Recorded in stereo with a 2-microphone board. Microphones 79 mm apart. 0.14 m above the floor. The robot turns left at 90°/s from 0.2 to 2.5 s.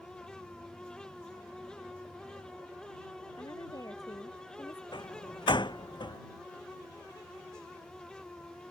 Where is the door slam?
75° left (ahead or behind).